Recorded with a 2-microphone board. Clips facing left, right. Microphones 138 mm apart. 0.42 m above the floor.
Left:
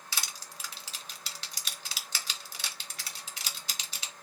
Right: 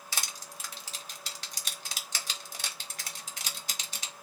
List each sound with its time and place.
0.1 s crushing: 45° right (ahead or behind), 1.0 m